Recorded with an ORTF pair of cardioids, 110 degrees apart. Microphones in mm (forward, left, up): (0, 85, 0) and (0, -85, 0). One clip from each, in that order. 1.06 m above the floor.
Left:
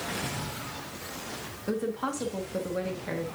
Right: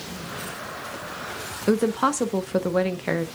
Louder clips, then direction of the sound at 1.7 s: Right 9 dB; 55° right.